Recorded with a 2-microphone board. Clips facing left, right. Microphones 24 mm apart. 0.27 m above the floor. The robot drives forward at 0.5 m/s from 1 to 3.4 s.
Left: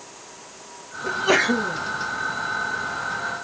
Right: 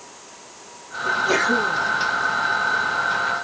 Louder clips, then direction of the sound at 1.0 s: Even; 55° left (ahead or behind).